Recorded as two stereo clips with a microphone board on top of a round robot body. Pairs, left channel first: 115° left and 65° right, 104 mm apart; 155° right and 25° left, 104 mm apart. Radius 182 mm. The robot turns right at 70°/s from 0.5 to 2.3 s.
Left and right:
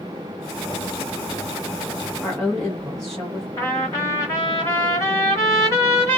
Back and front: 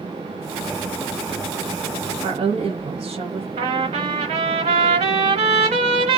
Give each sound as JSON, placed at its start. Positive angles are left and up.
{"t": 2.2, "sound": "a woman speaking", "azimuth_deg": 20, "distance_m": 1.1}
{"t": 3.6, "sound": "a trumpet", "azimuth_deg": 50, "distance_m": 0.8}